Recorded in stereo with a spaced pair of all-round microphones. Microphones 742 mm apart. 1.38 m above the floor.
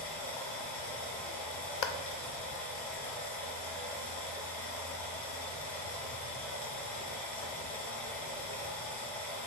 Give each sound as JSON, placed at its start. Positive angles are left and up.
{"t": 0.0, "sound": "running water", "side_deg": 35, "distance_m": 1.1}
{"t": 1.8, "sound": "a clap", "side_deg": 70, "distance_m": 0.5}